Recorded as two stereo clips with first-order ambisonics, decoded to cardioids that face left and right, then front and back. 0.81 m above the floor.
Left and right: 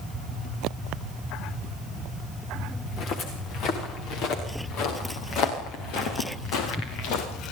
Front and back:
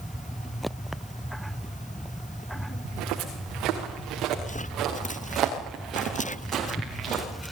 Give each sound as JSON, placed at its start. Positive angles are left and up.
{"t": 2.9, "sound": "footsteps", "azimuth_deg": 140, "distance_m": 6.5}